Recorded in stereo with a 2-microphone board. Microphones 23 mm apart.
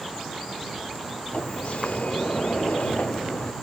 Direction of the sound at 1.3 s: 70° left (ahead or behind).